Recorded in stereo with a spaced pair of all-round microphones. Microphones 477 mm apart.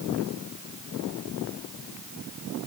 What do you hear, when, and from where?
Only background noise.